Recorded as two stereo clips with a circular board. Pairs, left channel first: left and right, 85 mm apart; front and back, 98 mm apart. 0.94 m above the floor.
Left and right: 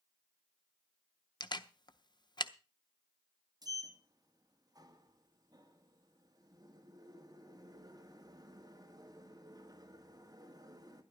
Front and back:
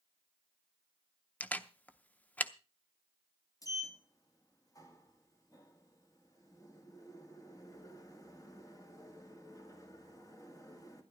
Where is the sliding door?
50° right, 1.9 m.